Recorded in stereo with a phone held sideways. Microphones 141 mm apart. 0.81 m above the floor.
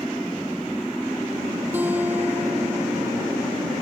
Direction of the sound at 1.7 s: 10° right (ahead or behind).